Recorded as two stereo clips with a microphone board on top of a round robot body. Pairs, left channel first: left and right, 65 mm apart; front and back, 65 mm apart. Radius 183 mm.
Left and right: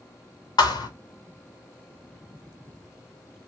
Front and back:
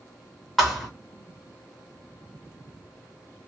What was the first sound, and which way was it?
A thud, 85° left.